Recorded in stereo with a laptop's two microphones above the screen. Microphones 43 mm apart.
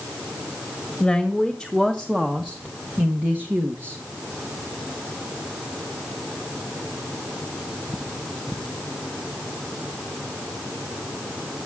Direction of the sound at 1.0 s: 5° left (ahead or behind).